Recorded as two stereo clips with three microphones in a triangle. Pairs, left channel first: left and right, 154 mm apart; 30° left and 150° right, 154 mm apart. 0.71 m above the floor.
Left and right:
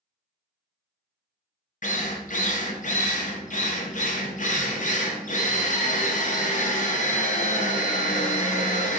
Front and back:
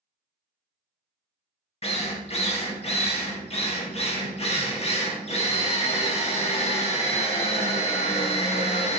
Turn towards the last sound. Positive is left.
turn(degrees=70)